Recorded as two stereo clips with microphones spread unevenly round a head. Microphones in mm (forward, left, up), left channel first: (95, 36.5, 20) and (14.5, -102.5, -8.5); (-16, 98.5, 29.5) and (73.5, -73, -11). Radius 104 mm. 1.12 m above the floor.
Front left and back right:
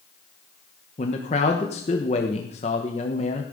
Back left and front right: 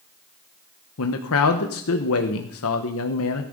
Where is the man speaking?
120° left, 1.0 m.